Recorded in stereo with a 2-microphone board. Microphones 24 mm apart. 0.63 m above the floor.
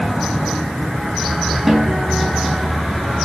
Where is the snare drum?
15° right (ahead or behind), 5 m.